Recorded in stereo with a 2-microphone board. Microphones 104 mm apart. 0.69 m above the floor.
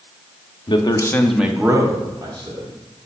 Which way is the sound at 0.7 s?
55° left (ahead or behind).